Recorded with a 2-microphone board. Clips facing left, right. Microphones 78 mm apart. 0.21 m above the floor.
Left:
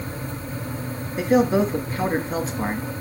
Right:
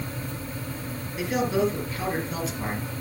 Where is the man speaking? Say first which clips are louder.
Left 6 dB; 35° left (ahead or behind), 2.5 m.